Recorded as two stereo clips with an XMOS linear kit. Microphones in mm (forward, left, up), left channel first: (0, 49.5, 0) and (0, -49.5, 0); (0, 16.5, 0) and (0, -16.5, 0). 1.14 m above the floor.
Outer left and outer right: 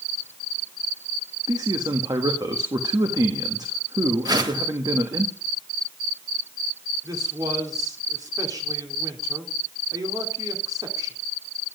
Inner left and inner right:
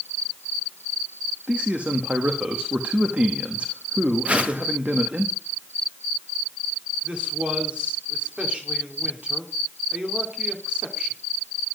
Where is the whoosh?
40° right (ahead or behind), 1.7 m.